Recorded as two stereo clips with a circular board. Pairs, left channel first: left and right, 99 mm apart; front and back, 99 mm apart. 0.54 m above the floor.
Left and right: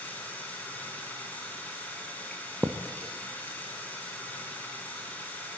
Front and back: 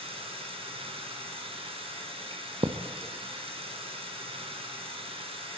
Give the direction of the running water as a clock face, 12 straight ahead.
7 o'clock.